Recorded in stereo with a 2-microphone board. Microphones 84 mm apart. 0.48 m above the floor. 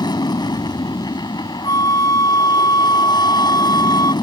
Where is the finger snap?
No finger snap in this recording.